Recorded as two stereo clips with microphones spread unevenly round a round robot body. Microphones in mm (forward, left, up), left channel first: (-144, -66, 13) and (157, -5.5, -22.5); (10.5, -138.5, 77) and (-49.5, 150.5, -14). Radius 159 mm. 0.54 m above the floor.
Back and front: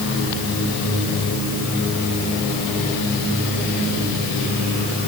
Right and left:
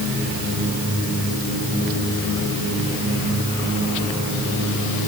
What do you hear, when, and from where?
Only background noise.